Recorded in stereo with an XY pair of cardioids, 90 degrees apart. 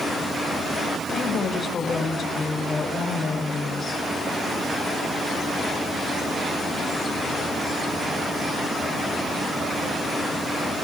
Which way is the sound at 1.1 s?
55° left.